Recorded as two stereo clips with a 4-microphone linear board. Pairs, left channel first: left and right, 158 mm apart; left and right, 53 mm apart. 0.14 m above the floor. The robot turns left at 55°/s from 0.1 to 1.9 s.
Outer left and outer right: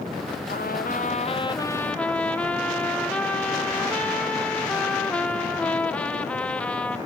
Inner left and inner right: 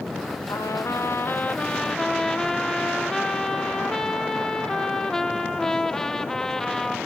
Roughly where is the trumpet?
Left.